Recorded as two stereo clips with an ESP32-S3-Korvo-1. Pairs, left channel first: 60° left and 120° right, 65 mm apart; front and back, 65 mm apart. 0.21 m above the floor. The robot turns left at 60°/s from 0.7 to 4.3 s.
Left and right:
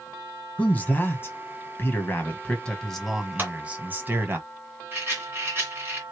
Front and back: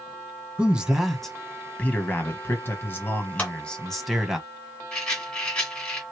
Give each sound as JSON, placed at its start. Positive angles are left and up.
{"t": 0.6, "sound": "a man speaking", "azimuth_deg": 115, "distance_m": 1.2}
{"t": 3.4, "sound": "a clap", "azimuth_deg": -65, "distance_m": 2.5}
{"t": 4.9, "sound": "a rattle", "azimuth_deg": -70, "distance_m": 2.5}